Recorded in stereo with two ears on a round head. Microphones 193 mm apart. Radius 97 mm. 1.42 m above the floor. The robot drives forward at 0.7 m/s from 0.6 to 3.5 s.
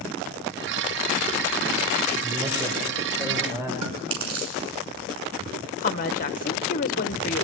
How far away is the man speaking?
About 4.5 m.